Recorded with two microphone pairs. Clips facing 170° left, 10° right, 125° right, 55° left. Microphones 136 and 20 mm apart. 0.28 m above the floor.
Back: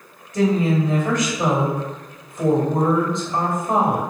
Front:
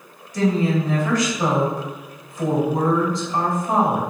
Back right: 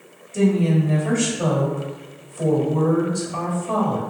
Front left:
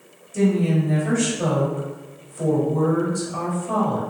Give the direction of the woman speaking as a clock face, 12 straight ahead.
6 o'clock.